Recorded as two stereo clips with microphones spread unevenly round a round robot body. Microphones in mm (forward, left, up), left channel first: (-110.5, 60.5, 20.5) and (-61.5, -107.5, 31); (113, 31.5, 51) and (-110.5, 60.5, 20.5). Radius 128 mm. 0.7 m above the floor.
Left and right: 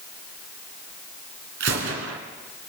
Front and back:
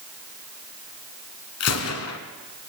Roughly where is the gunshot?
Ahead right.